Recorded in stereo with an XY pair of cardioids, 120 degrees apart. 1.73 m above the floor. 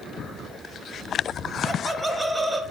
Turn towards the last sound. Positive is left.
turn(degrees=-15)